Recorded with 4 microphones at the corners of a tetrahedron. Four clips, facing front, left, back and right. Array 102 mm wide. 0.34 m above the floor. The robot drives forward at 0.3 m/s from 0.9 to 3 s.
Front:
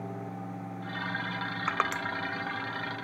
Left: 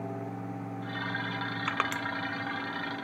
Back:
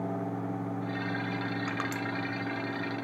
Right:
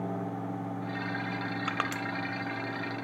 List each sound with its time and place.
1.7 s crushing: straight ahead, 1.5 m